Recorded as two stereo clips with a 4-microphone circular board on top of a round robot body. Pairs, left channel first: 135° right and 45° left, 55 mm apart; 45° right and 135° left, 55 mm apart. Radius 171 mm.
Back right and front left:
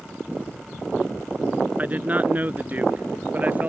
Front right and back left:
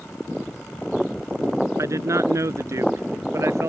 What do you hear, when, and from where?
1.8 s a man speaking: 105° left